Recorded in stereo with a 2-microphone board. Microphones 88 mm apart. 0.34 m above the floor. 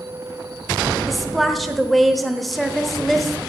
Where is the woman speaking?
Centre (ahead or behind), 0.9 m.